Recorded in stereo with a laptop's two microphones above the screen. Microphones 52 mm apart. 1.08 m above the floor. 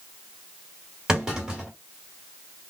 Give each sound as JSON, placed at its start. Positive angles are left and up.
{"t": 1.1, "sound": "a clunk", "side_deg": -15, "distance_m": 2.5}